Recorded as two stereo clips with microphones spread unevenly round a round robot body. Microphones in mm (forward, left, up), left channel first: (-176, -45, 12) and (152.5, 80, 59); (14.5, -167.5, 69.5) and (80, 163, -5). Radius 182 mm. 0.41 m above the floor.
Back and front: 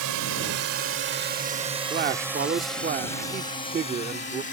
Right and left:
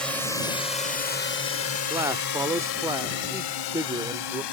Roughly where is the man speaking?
Ahead left.